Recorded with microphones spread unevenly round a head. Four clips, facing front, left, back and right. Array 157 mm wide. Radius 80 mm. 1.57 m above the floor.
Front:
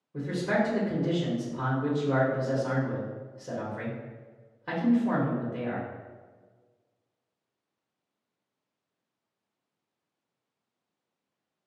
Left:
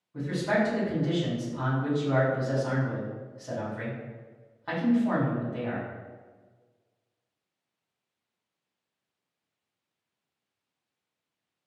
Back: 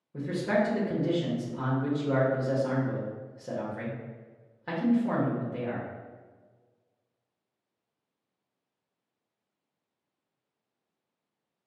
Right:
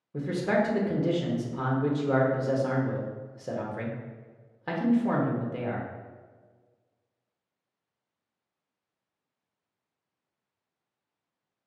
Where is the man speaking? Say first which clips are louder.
Right 1 dB, even; 90° right, 1.0 m.